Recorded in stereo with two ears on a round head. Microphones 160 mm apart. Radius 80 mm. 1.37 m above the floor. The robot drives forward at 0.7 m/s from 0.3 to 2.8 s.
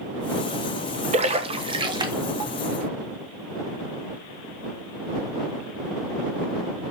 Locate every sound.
1.1 s a splash: 40° right (ahead or behind), 1.1 m; by 2.5 s 20° right (ahead or behind), 2.0 m